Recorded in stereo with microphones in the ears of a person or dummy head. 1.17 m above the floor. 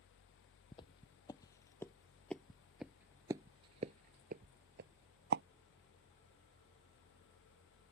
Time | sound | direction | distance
0.7 | footsteps | 25° left (ahead or behind) | ?